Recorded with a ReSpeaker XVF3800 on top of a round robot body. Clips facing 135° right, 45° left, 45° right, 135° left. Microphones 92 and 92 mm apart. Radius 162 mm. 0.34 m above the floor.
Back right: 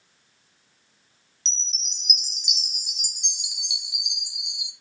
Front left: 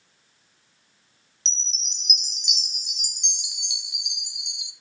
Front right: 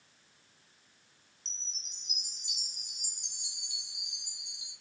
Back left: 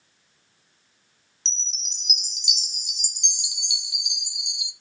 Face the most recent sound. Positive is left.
turn(degrees=135)